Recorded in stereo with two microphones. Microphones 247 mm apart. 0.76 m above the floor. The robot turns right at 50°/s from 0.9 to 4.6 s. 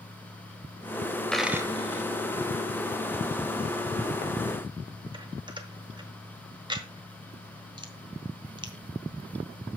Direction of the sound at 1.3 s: 5° left (ahead or behind).